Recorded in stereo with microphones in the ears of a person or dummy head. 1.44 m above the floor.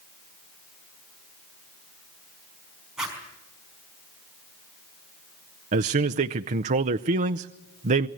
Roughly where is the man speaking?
Right.